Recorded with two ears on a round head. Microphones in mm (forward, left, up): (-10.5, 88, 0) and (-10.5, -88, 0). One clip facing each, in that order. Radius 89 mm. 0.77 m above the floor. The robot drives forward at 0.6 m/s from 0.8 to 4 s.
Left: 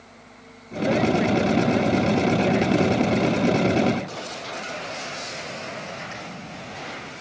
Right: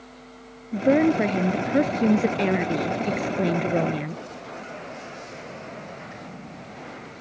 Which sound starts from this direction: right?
A woman speaking, at 0.7 s.